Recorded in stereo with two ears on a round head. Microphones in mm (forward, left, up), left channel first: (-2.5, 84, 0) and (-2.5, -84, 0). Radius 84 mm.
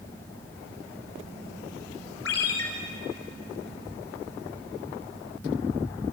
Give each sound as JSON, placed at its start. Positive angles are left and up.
{"t": 2.2, "sound": "a ringtone", "side_deg": 75, "distance_m": 4.5}